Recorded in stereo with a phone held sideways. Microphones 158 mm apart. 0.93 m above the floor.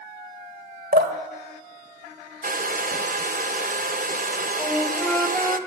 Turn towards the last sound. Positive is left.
turn(degrees=10)  # may be behind; listen again after turning